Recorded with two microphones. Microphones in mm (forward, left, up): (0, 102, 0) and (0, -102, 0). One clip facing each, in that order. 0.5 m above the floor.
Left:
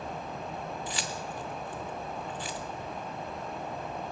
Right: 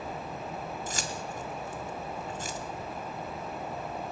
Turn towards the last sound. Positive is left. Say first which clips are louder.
# even
turn(degrees=-45)  # may be behind; listen again after turning